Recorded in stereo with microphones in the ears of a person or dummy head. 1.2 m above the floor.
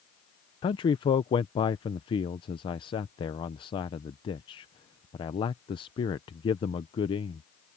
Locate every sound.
0.6 s a man speaking: 20° left (ahead or behind)